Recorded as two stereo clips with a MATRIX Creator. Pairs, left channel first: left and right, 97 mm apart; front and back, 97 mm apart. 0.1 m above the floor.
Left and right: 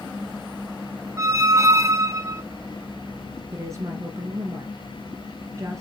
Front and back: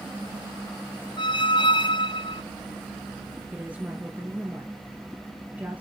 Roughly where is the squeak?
Ahead right.